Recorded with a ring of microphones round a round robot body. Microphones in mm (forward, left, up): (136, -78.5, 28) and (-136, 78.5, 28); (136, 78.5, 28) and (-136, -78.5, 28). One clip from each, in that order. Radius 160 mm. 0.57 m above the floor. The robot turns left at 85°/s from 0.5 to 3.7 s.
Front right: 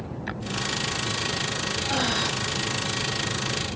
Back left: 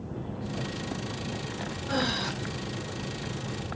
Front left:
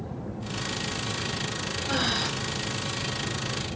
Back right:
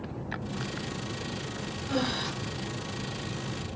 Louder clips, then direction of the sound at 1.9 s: Front right 2 dB, front left 4 dB; 75° left.